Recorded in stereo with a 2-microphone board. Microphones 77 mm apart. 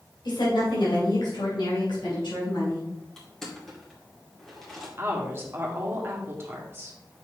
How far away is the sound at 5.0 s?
About 1.8 m.